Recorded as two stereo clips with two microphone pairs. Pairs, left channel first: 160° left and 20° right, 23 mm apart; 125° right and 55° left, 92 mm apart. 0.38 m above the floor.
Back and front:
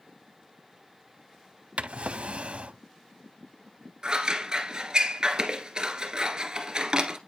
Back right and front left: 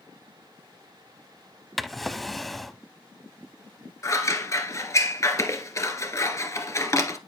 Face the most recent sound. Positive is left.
turn(degrees=-70)